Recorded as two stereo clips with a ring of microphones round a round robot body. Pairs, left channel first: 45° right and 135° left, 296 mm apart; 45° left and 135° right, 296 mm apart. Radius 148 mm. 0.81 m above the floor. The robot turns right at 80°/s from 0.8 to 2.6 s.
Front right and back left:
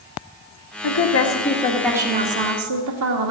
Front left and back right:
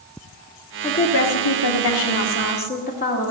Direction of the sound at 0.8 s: 35° right.